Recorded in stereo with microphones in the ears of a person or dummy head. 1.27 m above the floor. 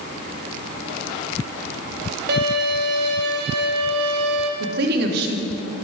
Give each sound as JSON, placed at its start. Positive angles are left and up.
{"t": 2.3, "sound": "a violin", "side_deg": -55, "distance_m": 0.7}
{"t": 4.6, "sound": "a woman speaking", "side_deg": -60, "distance_m": 0.6}